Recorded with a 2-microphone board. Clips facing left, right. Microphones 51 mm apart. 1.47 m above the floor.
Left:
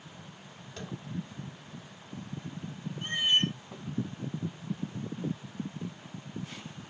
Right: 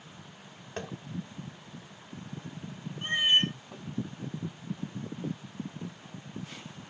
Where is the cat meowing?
20° right (ahead or behind), 0.7 m.